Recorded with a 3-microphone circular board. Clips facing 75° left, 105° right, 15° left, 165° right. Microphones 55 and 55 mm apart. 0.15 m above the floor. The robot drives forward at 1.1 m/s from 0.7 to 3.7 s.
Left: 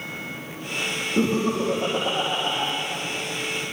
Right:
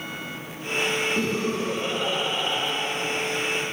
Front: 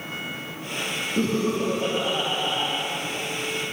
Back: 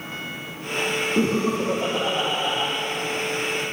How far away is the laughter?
About 6 m.